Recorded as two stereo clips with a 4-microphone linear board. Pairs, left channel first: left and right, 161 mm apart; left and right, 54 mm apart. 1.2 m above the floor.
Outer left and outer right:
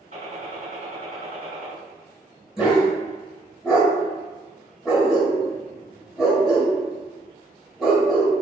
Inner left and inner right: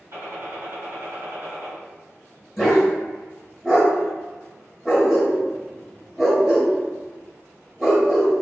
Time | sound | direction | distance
0.1 | a gunshot | 55° right (ahead or behind) | 1.7 m
2.6 | a dog barking | 5° right (ahead or behind) | 1.2 m